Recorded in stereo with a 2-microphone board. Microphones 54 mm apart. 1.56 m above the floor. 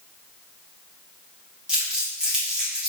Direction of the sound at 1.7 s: 15° right (ahead or behind).